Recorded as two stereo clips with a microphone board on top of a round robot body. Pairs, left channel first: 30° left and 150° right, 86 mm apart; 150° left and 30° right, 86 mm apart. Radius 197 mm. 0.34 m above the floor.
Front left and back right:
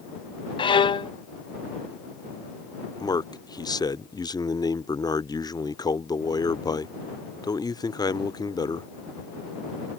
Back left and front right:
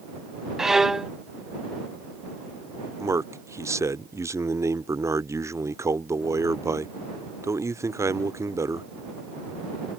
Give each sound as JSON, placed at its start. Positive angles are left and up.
{"t": 0.6, "sound": "a violin", "azimuth_deg": 55}
{"t": 3.0, "sound": "a man speaking", "azimuth_deg": 15}